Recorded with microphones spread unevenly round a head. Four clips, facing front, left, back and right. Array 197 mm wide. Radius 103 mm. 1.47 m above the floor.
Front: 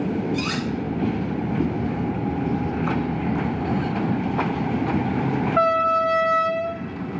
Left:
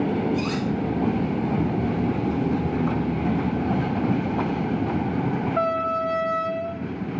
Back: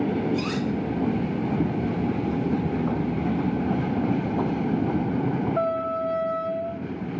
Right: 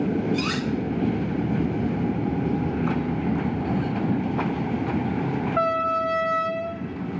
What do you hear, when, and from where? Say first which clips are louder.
0.3 s cutlery clinking: left 1 dB, even; 75° right, 1.5 m